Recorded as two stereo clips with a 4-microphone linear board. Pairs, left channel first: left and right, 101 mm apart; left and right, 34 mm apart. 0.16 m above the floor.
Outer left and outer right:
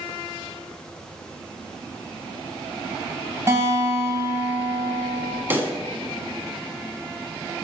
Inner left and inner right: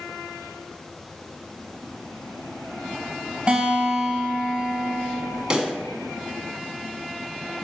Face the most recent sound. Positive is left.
turn(degrees=-20)  # may be behind; listen again after turning